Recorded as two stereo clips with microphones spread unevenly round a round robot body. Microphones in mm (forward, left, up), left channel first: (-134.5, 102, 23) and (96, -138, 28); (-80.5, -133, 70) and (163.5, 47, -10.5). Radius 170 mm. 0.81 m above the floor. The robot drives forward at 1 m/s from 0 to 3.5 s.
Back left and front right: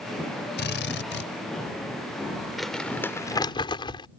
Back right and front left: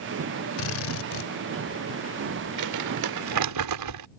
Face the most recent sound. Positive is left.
turn(degrees=60)